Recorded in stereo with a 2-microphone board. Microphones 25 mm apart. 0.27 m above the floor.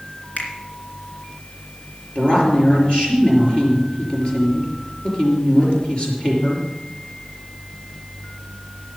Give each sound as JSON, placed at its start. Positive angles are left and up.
{"t": 0.4, "sound": "a finger snap", "side_deg": 70, "distance_m": 2.5}
{"t": 2.1, "sound": "a woman speaking", "side_deg": 40, "distance_m": 5.5}